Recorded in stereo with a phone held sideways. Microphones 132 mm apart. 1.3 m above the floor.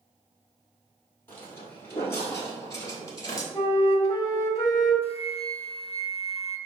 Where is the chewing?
No chewing in this recording.